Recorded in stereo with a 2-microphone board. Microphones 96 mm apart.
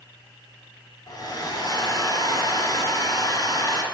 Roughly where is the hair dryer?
Left.